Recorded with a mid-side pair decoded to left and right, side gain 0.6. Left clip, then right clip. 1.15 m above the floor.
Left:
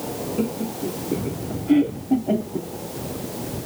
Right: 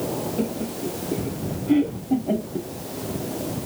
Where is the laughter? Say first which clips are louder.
Left 1 dB; 10° left.